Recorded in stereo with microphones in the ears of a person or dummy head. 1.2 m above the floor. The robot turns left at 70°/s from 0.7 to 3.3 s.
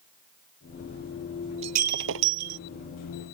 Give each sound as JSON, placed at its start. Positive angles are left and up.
{"t": 1.6, "sound": "breaking glass", "azimuth_deg": -30}